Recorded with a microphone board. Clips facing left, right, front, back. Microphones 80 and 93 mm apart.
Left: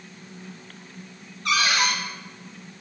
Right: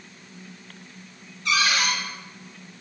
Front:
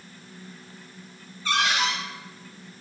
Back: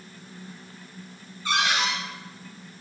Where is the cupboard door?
110° left, 1.6 m.